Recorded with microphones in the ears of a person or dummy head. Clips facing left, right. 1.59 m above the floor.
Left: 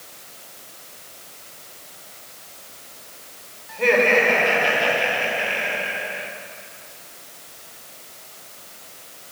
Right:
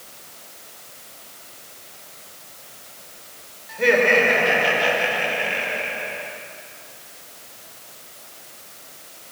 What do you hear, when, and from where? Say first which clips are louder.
3.7 s laughter: even; 10° right (ahead or behind), 5 m; by 6.3 s 5° left (ahead or behind), 4 m